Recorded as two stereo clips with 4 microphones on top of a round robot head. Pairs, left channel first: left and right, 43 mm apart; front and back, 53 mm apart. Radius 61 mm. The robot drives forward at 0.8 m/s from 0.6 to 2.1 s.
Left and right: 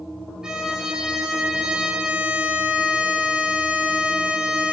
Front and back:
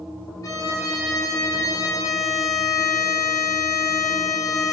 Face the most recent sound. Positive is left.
turn(degrees=-20)